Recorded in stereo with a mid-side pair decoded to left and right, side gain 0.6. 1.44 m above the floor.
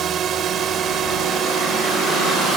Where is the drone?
45° right.